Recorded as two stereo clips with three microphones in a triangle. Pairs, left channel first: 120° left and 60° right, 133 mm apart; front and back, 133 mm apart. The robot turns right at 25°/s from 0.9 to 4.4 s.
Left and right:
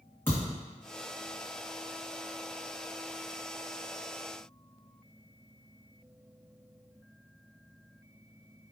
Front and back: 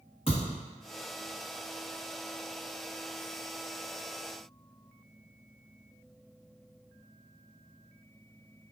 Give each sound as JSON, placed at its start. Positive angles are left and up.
{"t": 0.3, "sound": "a thud", "azimuth_deg": 45, "distance_m": 1.8}